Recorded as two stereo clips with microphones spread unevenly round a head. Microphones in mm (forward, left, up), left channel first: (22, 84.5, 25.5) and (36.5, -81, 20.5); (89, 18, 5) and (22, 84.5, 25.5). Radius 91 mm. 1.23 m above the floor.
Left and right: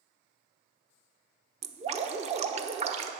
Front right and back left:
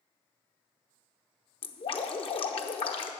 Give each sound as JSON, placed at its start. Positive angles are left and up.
{"t": 1.6, "sound": "dripping", "azimuth_deg": -35, "distance_m": 0.9}